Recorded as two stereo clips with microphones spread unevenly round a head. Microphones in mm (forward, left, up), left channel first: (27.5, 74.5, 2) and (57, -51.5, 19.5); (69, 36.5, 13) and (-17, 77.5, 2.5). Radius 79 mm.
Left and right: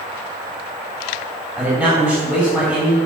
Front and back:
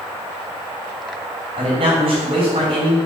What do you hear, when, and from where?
1.6 s a man speaking: 165° right, 3.5 m